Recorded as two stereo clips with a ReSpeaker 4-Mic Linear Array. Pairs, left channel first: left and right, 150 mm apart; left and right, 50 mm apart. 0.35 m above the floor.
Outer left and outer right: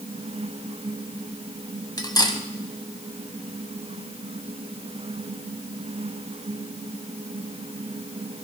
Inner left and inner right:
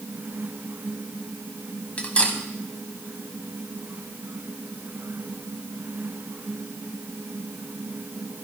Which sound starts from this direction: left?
Cutlery clinking, at 2.0 s.